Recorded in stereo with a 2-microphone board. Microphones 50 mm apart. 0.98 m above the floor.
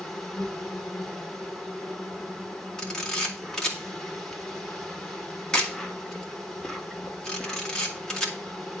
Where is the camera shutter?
10° left (ahead or behind), 2 m.